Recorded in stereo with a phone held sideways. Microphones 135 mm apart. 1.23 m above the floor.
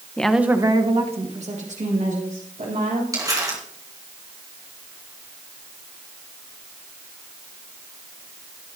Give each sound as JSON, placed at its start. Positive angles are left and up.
{"t": 0.2, "sound": "a woman speaking", "side_deg": 10, "distance_m": 1.0}
{"t": 3.1, "sound": "crumpling", "side_deg": -25, "distance_m": 3.5}